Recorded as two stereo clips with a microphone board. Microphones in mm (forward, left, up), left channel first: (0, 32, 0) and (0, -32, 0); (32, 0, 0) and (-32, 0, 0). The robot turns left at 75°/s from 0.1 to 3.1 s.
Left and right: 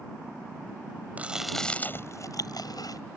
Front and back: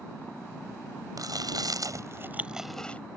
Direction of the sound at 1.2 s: 155° right.